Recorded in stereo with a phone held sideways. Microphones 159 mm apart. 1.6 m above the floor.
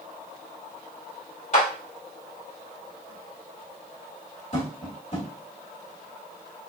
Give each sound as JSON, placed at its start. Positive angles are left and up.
{"t": 1.5, "sound": "a clap", "side_deg": 50, "distance_m": 2.5}
{"t": 4.5, "sound": "tapping", "side_deg": 55, "distance_m": 2.5}